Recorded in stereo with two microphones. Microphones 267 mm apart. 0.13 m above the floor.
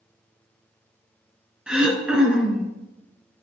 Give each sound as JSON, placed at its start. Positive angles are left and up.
{"t": 1.7, "sound": "throat clearing", "side_deg": -5, "distance_m": 1.0}